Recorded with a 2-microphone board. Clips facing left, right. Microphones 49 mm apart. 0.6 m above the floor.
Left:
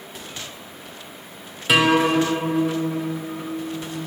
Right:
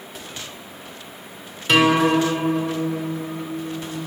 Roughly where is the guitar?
Centre.